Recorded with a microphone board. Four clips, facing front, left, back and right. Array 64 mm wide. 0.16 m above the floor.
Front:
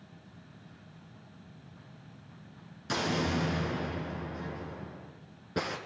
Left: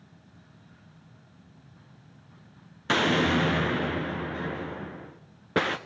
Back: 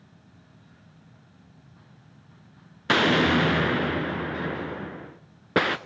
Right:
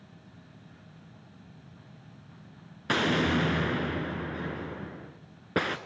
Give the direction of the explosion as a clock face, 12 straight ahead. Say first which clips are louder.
Left 3 dB, back 10 dB; 6 o'clock.